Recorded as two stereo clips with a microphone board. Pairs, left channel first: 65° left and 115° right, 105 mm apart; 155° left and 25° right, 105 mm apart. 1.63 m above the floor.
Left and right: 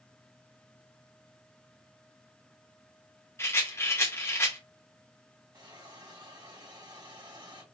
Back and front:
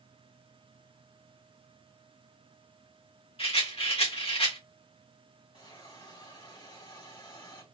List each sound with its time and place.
3.4 s a rattle: 130° left, 1.8 m
5.5 s a hiss: 160° right, 3 m